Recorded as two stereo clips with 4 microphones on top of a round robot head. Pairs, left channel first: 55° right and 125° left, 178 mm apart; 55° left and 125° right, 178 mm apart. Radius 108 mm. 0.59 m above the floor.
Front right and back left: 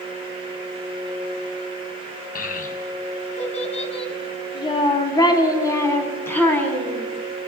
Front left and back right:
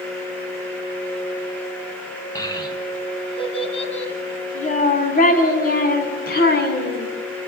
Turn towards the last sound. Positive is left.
turn(degrees=25)